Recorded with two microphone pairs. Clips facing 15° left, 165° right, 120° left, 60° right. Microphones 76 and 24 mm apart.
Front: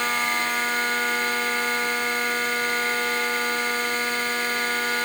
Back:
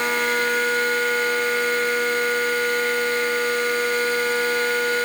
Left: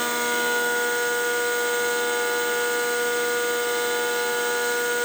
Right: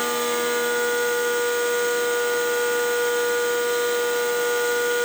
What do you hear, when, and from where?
Only background noise.